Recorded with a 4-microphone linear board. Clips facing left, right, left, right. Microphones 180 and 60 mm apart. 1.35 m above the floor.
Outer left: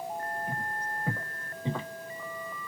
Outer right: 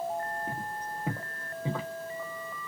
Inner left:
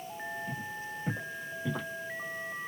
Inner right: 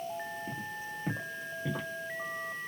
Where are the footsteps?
25° right (ahead or behind), 1.9 m; by 1.9 s centre (ahead or behind), 1.8 m.